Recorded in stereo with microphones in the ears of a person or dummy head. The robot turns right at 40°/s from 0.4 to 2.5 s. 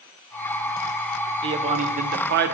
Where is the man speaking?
150° right, 0.6 m; by 2.6 s 105° right, 0.6 m.